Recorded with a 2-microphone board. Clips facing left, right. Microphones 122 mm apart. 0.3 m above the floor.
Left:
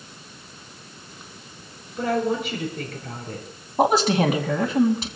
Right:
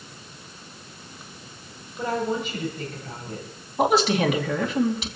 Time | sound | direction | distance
2.0 | a woman speaking | 75° left (ahead or behind) | 6.5 m
3.8 | a woman speaking | 40° left (ahead or behind) | 2.5 m